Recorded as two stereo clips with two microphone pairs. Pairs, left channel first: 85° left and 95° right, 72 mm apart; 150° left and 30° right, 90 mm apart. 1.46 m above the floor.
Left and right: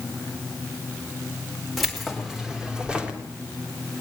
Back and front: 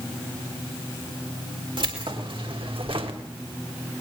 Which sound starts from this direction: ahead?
Keys jangling, at 1.8 s.